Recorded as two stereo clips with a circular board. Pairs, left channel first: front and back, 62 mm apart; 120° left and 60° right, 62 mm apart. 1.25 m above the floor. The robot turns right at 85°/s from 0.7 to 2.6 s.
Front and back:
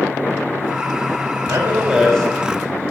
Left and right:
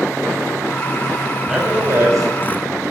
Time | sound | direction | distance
1.5 | a man speaking | 140° right | 6.5 m